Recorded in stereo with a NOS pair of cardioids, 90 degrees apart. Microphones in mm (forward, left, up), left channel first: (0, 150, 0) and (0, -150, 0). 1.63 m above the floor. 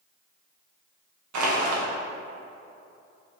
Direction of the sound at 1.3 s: 70° right.